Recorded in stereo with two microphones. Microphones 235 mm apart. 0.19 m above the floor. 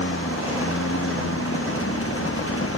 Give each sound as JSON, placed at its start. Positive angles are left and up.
{"t": 0.0, "sound": "a lawn mower", "side_deg": 75}